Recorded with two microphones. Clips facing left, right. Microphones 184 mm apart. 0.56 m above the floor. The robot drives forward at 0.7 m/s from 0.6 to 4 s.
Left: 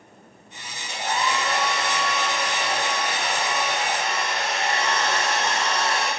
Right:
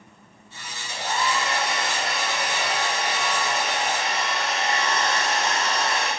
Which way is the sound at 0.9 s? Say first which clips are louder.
Left 1 dB; 75° left (ahead or behind).